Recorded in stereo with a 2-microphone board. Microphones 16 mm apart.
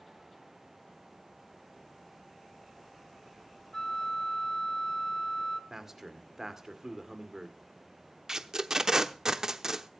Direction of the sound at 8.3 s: 40° right (ahead or behind).